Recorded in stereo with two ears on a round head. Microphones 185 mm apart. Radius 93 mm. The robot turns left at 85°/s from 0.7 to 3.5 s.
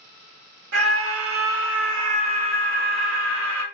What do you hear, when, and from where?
0.7 s a scream: 60° right, 0.7 m; by 3.6 s 65° left, 0.7 m